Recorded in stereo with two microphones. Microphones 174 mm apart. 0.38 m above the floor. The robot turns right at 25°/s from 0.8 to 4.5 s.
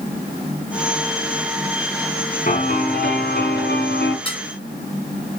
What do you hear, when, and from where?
2.5 s a piano: 55° left, 2.5 m; by 4.2 s 95° left, 2.5 m
4.2 s dishes clattering: 30° left (ahead or behind), 2.5 m; by 4.4 s 35° left (ahead or behind), 2.5 m